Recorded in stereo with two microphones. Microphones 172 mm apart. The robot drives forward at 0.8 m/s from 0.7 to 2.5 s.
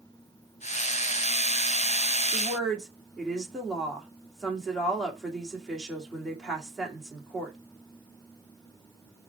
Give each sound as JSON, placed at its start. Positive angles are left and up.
{"t": 2.3, "sound": "a woman speaking", "side_deg": 0, "distance_m": 2.0}